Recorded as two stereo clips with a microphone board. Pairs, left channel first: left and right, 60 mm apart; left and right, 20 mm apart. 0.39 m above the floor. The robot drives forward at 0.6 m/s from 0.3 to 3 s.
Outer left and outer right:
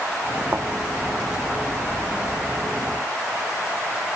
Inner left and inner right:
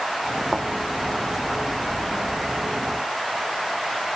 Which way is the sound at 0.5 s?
40° right (ahead or behind).